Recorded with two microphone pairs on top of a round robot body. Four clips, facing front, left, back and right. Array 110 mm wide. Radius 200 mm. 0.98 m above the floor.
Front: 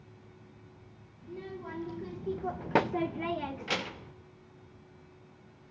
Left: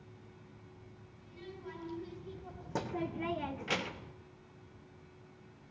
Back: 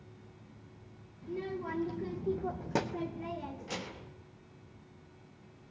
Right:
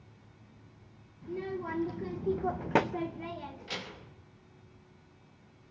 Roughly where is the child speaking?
Behind right.